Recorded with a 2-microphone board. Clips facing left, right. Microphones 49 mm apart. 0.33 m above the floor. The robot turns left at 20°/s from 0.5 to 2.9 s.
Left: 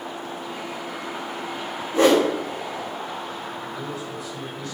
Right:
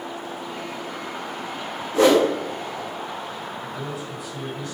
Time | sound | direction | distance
1.9 | a whoosh | 35° left (ahead or behind) | 3 m
3.6 | a man speaking | 20° right (ahead or behind) | 2 m